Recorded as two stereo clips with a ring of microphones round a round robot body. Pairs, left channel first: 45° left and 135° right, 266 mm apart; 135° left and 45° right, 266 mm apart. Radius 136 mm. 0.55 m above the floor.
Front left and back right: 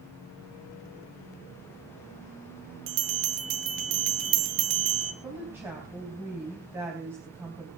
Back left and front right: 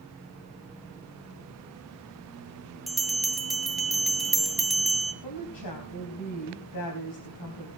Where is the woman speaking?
145° left, 4 m.